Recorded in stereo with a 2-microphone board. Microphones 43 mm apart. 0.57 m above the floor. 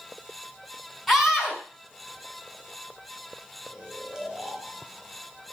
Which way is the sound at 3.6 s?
15° right (ahead or behind).